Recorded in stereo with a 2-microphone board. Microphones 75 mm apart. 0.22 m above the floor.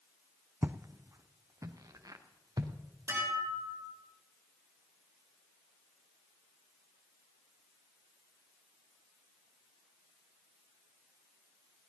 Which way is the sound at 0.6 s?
25° right (ahead or behind).